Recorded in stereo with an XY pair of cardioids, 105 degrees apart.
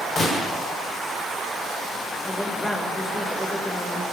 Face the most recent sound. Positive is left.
turn(degrees=15)